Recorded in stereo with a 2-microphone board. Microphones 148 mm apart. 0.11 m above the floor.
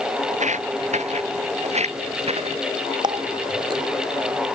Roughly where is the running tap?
Right.